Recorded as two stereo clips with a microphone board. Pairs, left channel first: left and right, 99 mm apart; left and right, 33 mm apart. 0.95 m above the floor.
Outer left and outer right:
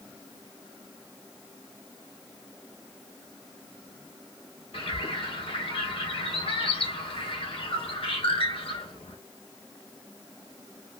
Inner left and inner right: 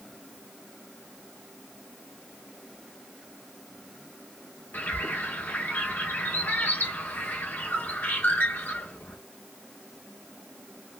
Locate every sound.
4.7 s a bird: 70° left (ahead or behind), 1.2 m